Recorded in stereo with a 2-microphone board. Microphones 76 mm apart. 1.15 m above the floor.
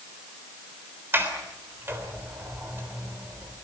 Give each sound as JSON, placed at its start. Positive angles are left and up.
{"t": 1.1, "sound": "a sliding door", "side_deg": -30, "distance_m": 3.5}